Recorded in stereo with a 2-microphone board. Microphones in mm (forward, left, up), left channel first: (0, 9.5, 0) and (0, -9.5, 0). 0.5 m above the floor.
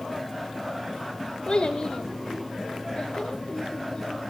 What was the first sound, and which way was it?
A child speaking, 55° left (ahead or behind).